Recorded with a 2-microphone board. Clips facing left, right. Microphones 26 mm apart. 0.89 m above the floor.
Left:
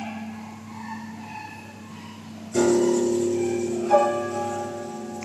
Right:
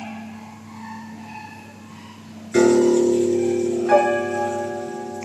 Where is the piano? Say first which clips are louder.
Right 5 dB; 75° right (ahead or behind), 7 m.